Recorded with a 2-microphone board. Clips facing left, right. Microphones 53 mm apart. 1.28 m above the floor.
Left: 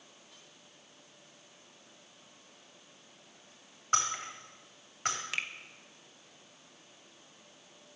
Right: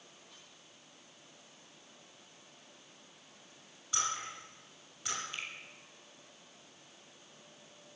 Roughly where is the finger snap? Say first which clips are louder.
Left 6 dB; left.